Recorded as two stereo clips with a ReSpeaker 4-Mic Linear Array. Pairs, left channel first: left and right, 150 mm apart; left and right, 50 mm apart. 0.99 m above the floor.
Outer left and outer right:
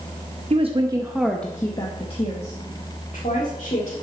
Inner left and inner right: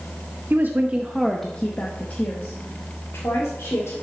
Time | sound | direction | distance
0.5 | a woman speaking | 50° right (ahead or behind) | 0.9 m